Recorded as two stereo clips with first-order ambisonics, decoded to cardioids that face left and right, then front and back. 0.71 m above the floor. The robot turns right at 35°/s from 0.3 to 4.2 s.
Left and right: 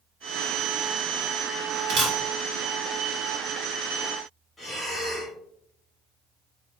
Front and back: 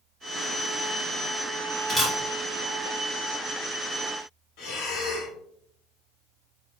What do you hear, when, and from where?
1.9 s a camera shutter: 95° right, 0.8 m; by 2.2 s 85° right, 0.8 m
4.6 s breathing: 10° left, 1.1 m